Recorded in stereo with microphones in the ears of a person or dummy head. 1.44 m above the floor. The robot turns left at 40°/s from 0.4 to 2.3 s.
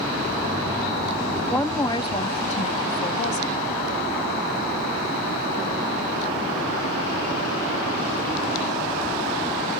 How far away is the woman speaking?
About 0.6 m.